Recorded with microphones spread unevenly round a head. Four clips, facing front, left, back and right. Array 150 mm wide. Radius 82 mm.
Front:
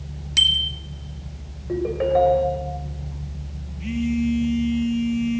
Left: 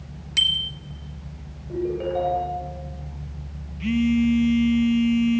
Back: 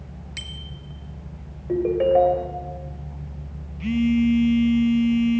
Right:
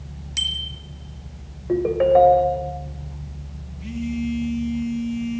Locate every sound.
0.4 s a bicycle bell: 20° left, 2 m
1.7 s a ringtone: 110° right, 2.5 m
3.8 s a phone buzzing: 110° left, 1.6 m